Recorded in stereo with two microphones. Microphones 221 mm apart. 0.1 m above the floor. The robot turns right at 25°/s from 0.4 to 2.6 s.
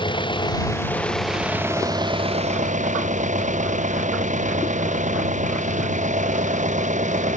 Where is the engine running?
160° left; by 7.4 s 145° right.